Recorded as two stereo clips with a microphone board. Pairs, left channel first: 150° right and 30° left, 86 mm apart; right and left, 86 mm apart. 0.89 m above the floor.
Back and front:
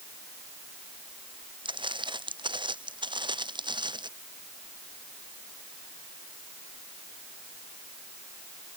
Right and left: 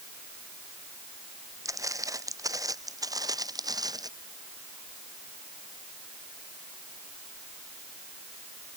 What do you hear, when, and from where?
1.6 s footsteps: 40° left; by 4.1 s 50° left